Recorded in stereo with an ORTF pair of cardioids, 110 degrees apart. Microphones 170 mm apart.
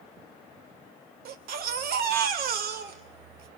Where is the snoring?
I don't hear snoring.